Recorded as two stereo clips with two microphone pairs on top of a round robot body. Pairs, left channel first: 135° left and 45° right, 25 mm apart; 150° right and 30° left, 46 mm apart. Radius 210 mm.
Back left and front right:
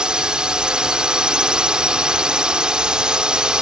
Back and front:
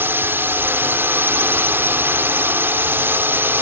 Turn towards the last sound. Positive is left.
turn(degrees=10)